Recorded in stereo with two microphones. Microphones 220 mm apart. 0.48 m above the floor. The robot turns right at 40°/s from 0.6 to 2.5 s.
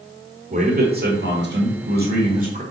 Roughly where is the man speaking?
Behind right.